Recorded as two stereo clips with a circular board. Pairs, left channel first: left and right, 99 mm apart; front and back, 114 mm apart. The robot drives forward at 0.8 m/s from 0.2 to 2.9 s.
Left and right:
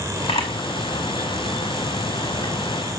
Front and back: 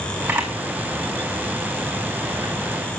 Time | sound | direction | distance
0.3 | a camera shutter | 100° left | 2.5 m